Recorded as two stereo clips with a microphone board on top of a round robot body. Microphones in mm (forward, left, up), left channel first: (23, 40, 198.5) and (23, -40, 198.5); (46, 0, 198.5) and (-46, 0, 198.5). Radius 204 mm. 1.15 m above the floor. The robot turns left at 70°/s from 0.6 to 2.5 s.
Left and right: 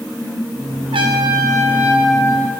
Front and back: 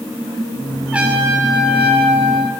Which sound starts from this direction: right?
A trumpet, at 0.9 s.